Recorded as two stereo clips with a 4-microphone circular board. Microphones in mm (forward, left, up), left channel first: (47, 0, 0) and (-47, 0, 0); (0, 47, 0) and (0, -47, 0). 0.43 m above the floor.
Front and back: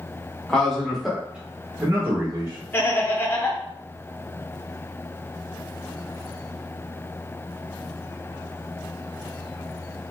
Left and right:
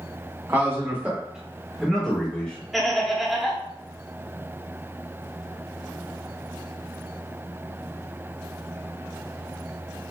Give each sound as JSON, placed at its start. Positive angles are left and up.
{"t": 0.5, "sound": "a man speaking", "azimuth_deg": -75, "distance_m": 1.1}
{"t": 2.7, "sound": "laughter", "azimuth_deg": 0, "distance_m": 0.8}